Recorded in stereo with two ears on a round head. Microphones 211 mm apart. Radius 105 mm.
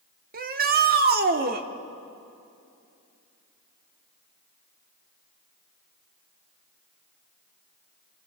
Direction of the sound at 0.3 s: 40° right (ahead or behind).